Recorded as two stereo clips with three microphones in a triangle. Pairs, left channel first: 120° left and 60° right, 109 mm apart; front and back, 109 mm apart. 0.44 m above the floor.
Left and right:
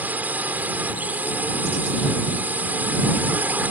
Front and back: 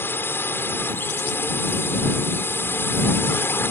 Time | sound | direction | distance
0.0 | a drone | 15° right | ?